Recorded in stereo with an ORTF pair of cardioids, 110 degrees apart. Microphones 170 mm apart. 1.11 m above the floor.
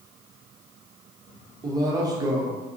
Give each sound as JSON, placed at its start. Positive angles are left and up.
{"t": 1.6, "sound": "a man speaking", "azimuth_deg": -25, "distance_m": 0.8}